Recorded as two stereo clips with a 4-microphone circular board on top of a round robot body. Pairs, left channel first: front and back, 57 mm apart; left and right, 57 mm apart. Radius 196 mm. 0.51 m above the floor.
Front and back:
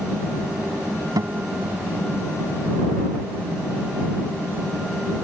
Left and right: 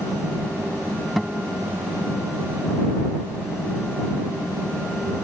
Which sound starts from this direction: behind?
A guitar, at 1.2 s.